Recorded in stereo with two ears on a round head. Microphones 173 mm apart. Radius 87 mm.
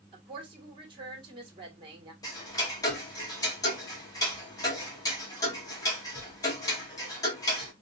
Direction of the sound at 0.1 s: 25° right (ahead or behind).